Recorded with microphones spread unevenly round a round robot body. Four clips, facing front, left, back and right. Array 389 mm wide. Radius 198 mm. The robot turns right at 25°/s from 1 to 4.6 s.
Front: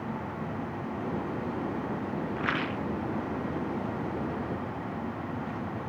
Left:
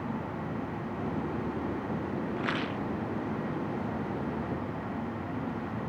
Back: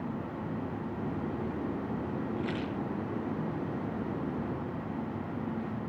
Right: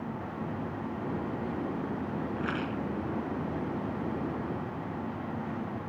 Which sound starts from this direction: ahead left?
A rattle, at 2.4 s.